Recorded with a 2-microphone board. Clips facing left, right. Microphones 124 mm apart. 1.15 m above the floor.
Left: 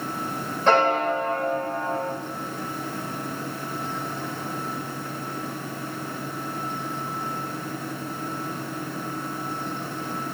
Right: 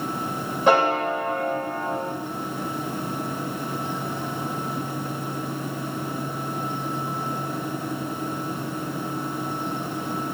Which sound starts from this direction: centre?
A piano, at 0.7 s.